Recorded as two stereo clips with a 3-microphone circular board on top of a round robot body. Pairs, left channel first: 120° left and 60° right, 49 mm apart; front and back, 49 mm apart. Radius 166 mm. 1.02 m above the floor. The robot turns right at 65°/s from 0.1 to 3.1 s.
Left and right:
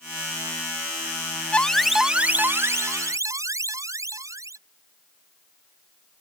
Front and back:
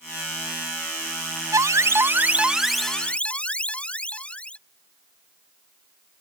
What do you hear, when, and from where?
1.5 s an alarm: 170° right; by 4.6 s 70° right